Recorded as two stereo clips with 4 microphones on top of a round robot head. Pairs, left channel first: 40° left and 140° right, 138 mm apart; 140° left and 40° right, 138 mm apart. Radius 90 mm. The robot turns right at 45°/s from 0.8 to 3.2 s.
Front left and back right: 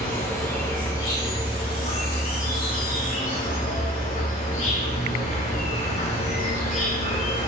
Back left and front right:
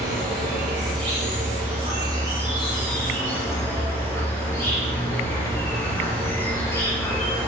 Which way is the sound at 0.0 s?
35° right.